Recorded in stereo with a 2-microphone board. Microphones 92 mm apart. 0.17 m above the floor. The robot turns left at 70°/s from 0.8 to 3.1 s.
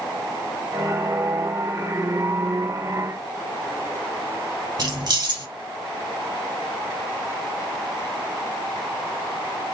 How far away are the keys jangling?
About 1.5 m.